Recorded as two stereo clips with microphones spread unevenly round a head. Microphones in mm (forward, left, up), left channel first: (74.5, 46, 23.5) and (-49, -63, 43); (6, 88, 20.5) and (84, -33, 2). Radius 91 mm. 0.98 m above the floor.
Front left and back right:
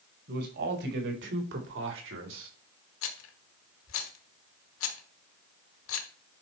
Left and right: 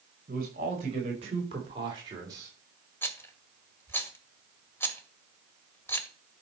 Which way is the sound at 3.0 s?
50° left.